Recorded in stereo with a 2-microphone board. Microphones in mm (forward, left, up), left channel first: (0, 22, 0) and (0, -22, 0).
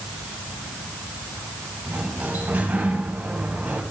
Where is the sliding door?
35° right (ahead or behind), 3 m.